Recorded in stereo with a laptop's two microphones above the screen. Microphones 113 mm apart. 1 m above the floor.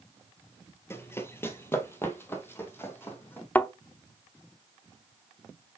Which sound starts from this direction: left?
Running footsteps, at 0.9 s.